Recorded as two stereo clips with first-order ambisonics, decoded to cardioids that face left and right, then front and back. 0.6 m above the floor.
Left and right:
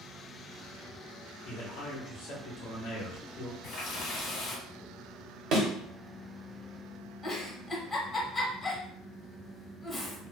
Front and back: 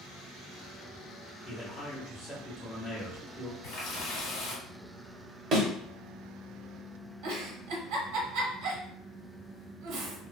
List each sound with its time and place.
1.4 s a man speaking: 80° left, 1.1 m
3.6 s a running tap: 35° left, 1.3 m
5.5 s a thud: 130° right, 0.8 m
7.2 s a giggle: 165° left, 0.8 m